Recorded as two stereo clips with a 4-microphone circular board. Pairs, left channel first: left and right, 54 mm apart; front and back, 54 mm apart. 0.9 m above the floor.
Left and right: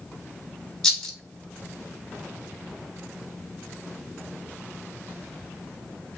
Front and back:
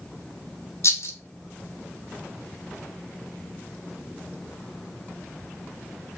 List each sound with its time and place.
0.8 s a rattle: 10° left, 0.9 m